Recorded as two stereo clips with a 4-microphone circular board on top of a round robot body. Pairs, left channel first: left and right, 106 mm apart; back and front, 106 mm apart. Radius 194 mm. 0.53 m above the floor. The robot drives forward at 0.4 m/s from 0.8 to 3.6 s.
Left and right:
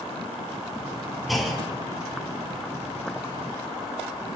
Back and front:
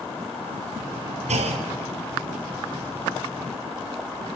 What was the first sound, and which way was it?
A clunk, straight ahead.